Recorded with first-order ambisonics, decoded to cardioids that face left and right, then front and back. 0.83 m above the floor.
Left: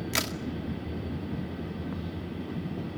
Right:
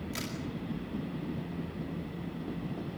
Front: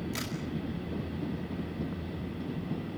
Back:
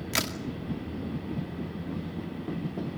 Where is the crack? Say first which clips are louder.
Left 10 dB, back 12 dB; 135° left, 2.5 m.